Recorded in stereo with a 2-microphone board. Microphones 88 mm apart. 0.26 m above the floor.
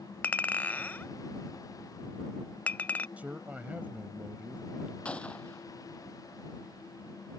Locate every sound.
0.2 s a clink: 20° left (ahead or behind)
3.2 s a man speaking: 15° right (ahead or behind)
5.0 s a gunshot: 10° left (ahead or behind)